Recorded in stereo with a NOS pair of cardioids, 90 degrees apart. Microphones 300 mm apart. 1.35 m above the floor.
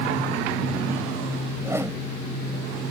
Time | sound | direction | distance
1.6 | a whoosh | 10° right | ?